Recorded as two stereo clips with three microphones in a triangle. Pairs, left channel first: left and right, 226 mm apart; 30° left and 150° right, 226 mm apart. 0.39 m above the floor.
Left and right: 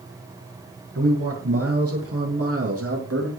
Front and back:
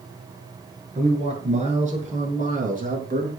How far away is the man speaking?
About 6.5 m.